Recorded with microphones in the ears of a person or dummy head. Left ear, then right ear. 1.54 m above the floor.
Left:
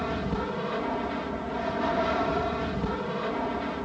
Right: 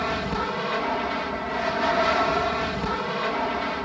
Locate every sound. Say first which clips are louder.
0.0 s an aircraft: right 5 dB; 45° right (ahead or behind)